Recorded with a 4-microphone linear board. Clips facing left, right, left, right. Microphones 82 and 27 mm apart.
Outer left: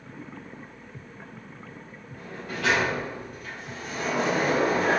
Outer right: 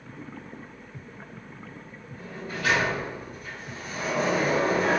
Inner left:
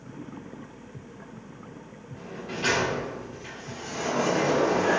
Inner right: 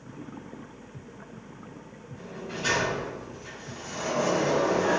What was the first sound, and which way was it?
A sliding door, 70° left (ahead or behind).